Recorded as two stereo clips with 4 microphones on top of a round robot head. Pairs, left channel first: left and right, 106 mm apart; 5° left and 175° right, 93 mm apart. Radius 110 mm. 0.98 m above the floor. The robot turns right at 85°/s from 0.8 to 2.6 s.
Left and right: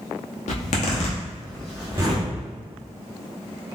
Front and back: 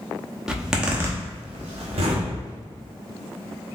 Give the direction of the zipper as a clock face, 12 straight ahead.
9 o'clock.